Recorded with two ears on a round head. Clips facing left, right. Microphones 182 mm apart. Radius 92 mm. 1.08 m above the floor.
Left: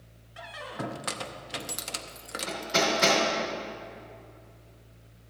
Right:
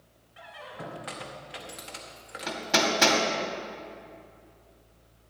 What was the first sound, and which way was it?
A squeak, 55° left (ahead or behind).